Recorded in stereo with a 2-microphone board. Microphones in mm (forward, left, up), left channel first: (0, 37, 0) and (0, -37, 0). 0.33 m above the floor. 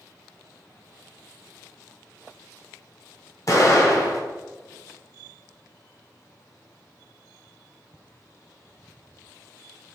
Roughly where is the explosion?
Left.